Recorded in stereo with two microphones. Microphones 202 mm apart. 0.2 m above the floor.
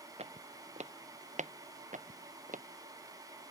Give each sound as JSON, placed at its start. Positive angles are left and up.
{"t": 0.2, "sound": "footsteps", "side_deg": -30}